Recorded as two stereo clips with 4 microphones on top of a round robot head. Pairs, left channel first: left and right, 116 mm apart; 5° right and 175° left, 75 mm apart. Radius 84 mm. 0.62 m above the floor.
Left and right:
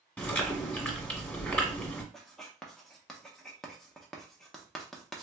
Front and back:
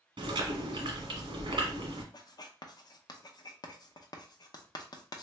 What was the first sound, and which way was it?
Chewing, 175° left.